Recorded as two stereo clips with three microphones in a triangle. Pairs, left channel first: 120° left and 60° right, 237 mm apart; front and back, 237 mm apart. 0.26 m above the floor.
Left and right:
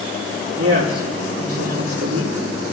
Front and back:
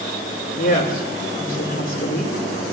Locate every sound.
0.6 s a woman speaking: 50° right, 6.5 m